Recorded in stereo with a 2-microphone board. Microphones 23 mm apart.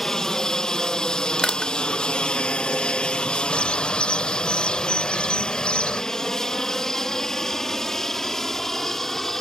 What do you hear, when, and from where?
0.0 s an aircraft: 25° left (ahead or behind); by 9.4 s 20° left (ahead or behind)
1.4 s crushing: 45° left (ahead or behind)
3.5 s a bird: 55° left (ahead or behind)